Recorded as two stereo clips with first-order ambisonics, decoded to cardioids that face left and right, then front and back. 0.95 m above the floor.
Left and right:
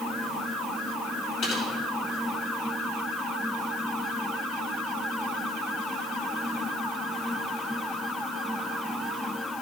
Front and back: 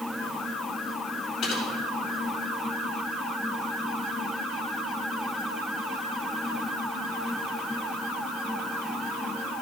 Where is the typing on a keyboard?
45° left, 3 m.